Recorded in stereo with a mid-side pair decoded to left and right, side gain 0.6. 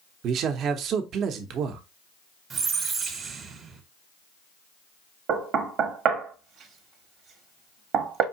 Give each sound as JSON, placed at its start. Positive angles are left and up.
{"t": 0.2, "sound": "a man speaking", "azimuth_deg": -55, "distance_m": 0.8}
{"t": 2.5, "sound": "a squeak", "azimuth_deg": -45, "distance_m": 1.1}
{"t": 5.3, "sound": "knocking", "azimuth_deg": -55, "distance_m": 1.0}